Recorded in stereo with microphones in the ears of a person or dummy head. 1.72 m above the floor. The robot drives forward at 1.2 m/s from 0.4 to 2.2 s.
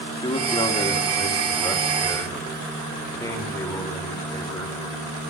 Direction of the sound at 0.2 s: 20° left (ahead or behind).